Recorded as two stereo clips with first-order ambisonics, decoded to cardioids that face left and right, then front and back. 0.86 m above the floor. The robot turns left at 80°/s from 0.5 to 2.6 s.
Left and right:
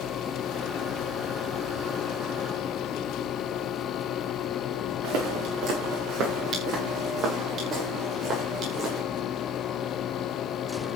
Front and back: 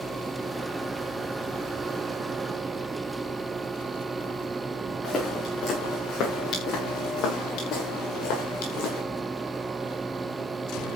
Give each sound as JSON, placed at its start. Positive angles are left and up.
{"t": 5.0, "sound": "footsteps", "azimuth_deg": -65, "distance_m": 5.5}